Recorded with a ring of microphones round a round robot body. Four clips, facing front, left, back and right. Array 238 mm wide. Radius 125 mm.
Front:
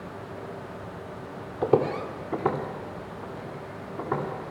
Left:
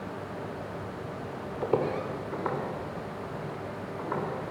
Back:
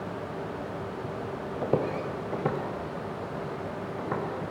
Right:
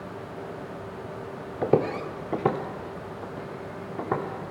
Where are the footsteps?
75° right, 0.9 m; by 4.3 s 100° right, 3 m.